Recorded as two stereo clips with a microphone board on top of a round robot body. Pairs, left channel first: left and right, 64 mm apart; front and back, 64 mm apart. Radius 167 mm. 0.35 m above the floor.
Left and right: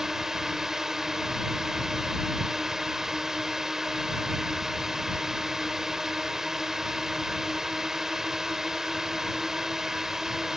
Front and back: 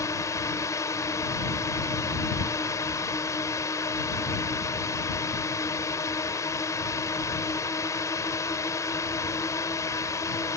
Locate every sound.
0.0 s a drone: 5° right